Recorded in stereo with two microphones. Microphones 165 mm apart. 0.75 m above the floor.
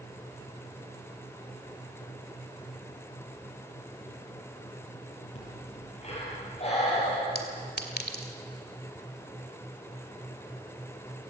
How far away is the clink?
About 1.9 m.